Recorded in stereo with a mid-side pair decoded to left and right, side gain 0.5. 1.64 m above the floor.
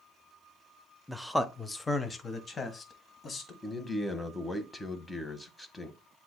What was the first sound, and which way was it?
A man speaking, straight ahead.